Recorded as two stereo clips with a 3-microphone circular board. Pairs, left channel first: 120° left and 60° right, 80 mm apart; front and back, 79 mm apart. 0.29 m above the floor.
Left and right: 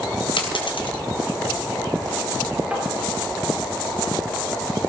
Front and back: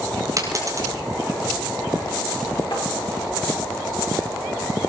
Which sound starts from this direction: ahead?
Tapping, at 2.7 s.